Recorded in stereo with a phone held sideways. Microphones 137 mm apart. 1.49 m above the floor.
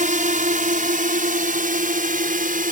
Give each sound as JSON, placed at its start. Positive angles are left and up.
{"t": 0.0, "sound": "a drone", "side_deg": -70}